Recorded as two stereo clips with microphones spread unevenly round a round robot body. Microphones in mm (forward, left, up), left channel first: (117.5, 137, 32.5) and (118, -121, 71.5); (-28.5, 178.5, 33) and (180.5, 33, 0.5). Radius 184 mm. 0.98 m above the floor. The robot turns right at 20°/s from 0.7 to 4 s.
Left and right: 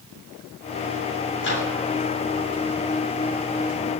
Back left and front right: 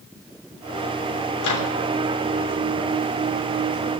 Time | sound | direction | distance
1.4 | a microwave | 145° left | 3 m